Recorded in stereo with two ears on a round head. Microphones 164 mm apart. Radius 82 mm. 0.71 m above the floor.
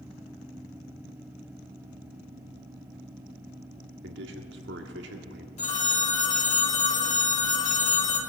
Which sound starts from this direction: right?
A man speaking, at 4.0 s.